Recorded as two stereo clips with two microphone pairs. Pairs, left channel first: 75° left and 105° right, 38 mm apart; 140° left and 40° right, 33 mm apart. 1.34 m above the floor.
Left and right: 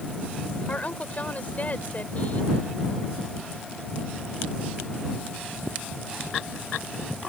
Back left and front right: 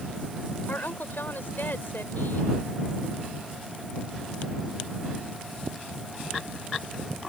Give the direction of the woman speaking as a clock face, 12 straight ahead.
8 o'clock.